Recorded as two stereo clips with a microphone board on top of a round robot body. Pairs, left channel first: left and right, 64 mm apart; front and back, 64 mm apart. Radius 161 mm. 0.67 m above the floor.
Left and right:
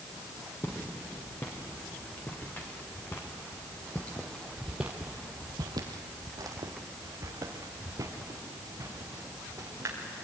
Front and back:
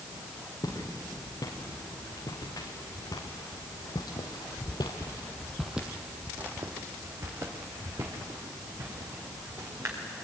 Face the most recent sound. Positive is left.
turn(degrees=-135)